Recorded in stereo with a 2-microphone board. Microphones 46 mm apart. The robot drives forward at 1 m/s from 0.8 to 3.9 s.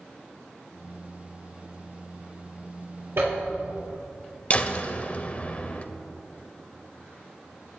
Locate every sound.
3.2 s a zipper: 65° right (ahead or behind), 4 m
4.5 s a door slam: 35° left (ahead or behind), 0.7 m